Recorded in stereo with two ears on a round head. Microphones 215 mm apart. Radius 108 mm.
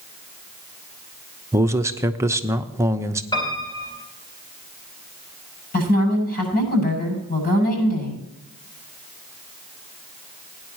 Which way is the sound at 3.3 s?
20° left (ahead or behind).